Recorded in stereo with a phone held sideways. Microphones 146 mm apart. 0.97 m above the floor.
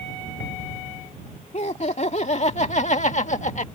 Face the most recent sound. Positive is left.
turn(degrees=55)  # may be behind; listen again after turning